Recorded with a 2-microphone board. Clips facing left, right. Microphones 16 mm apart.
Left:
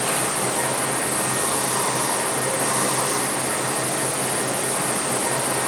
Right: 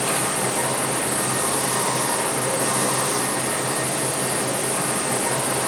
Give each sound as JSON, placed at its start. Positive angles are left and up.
{"t": 0.0, "sound": "running water", "side_deg": 35, "distance_m": 2.5}